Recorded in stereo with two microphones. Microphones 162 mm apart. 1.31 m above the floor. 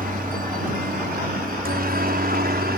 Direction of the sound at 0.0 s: 60° right (ahead or behind).